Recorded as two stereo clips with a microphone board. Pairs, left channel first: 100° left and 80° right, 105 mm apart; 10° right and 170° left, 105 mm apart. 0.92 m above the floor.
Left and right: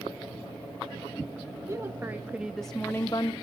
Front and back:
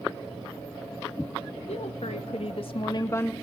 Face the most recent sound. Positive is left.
turn(degrees=60)